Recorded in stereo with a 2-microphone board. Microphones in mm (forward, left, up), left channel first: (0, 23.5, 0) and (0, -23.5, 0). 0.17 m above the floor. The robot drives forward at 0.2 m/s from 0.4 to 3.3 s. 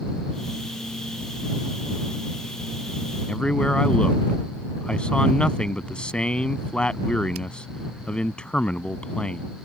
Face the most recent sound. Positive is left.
turn(degrees=20)  # may be behind; listen again after turning